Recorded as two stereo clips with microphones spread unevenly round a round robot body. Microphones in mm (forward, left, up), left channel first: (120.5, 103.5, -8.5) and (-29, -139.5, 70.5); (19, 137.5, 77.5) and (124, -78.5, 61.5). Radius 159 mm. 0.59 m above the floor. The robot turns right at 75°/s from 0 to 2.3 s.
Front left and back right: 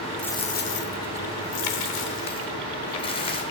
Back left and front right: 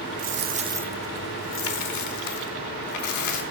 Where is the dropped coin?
30° right, 0.9 m; by 3.4 s 130° left, 0.9 m.